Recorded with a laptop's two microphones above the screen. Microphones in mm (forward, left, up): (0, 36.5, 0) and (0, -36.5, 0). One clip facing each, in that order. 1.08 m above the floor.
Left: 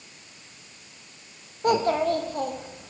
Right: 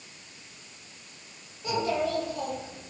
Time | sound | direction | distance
1.6 | a child speaking | 60° left (ahead or behind) | 0.7 m